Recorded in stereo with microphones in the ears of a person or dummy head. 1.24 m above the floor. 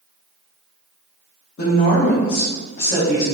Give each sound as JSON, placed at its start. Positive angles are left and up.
{"t": 1.6, "sound": "a woman speaking", "side_deg": 70, "distance_m": 1.0}